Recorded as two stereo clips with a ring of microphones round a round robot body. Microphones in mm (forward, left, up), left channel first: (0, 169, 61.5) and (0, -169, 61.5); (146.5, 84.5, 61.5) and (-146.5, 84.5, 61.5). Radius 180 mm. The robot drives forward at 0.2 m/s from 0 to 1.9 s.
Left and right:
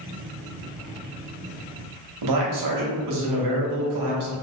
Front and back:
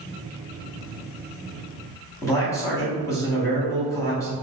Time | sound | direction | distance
2.2 | a man speaking | 80° right | 0.9 m